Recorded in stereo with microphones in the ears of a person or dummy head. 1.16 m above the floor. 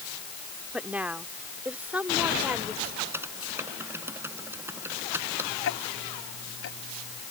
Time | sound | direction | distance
0.7 | a woman speaking | 5° right (ahead or behind) | ?
3.1 | typing on a keyboard | 10° right (ahead or behind) | ?
5.6 | ticking | 70° left (ahead or behind) | ?